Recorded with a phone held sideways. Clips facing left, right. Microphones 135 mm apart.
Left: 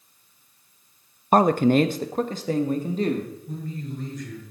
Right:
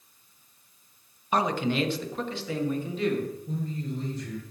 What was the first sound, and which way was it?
A man speaking, 50° left (ahead or behind).